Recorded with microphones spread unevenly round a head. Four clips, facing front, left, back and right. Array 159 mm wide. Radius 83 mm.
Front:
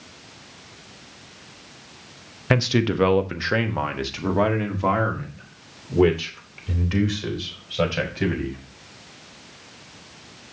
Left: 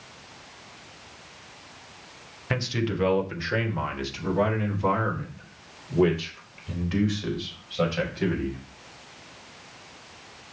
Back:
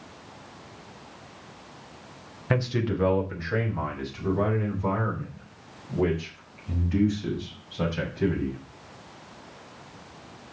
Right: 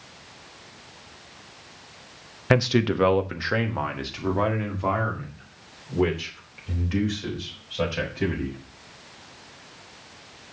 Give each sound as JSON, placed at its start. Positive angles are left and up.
{"t": 2.5, "sound": "a man speaking", "azimuth_deg": -45, "distance_m": 0.9}